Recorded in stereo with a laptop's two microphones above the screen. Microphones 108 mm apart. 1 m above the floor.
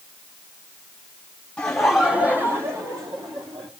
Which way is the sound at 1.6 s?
10° left (ahead or behind).